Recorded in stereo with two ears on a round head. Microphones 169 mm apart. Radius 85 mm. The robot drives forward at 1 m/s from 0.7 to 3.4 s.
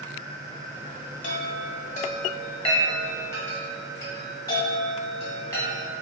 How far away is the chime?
About 0.8 m.